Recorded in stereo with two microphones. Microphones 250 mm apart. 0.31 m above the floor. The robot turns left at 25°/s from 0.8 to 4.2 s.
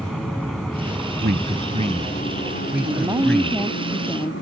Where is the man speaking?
40° right (ahead or behind); by 3.7 s 10° left (ahead or behind).